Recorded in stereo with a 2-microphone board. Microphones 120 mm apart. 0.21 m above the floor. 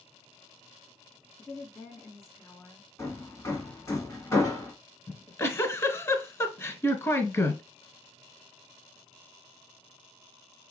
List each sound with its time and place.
1.4 s a woman speaking: 20° left (ahead or behind), 2 m
3.0 s hammering: 25° left (ahead or behind), 1.8 m
5.1 s a giggle: 25° left (ahead or behind), 0.9 m